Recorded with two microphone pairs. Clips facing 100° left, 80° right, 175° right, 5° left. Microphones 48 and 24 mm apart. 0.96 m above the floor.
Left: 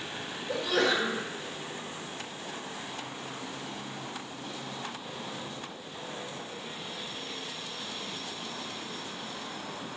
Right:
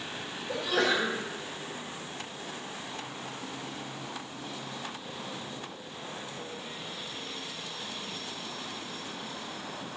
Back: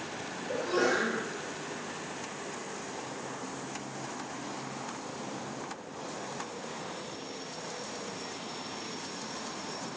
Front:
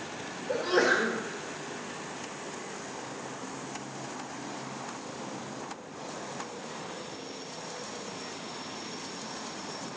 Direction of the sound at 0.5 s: 10° left.